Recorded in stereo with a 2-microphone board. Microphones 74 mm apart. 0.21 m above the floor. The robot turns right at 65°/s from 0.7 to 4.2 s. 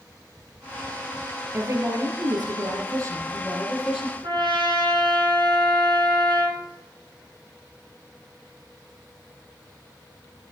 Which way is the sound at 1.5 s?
150° right.